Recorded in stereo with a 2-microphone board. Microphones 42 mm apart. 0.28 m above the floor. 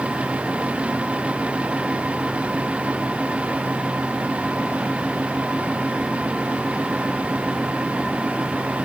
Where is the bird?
No bird in this recording.